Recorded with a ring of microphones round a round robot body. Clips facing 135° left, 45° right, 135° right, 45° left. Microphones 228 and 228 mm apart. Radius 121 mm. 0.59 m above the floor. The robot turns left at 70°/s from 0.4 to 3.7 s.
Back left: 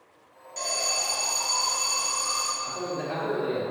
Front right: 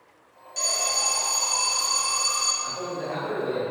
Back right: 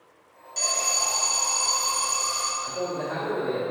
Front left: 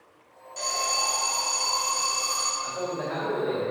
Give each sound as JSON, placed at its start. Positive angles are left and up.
{"t": 0.6, "sound": "an alarm", "azimuth_deg": -110, "distance_m": 1.9}
{"t": 2.6, "sound": "a man speaking", "azimuth_deg": 180, "distance_m": 2.0}